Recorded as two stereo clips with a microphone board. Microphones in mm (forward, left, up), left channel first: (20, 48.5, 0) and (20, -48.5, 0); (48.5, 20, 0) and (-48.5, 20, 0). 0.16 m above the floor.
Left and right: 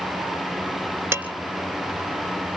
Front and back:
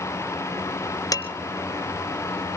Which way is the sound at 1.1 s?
30° right.